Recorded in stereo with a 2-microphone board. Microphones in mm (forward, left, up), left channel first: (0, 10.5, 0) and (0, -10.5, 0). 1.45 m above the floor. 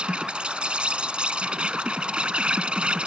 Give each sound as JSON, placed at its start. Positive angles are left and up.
{"t": 0.0, "sound": "an insect", "side_deg": -60}